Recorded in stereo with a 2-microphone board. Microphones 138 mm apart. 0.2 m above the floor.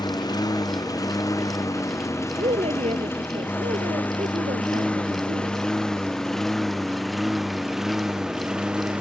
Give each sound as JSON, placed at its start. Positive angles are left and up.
{"t": 0.0, "sound": "a lawn mower", "side_deg": 30}
{"t": 2.4, "sound": "a woman speaking", "side_deg": -50}